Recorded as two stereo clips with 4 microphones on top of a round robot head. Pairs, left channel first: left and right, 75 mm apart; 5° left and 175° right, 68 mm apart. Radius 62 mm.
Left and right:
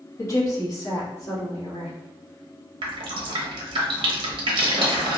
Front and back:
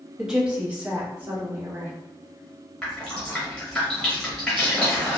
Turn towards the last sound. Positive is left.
turn(degrees=-80)